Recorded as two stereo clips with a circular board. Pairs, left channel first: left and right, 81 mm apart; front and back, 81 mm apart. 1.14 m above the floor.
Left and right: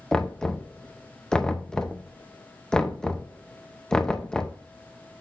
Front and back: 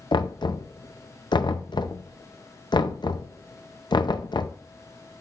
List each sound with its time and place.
0.1 s knocking: 10° left, 0.5 m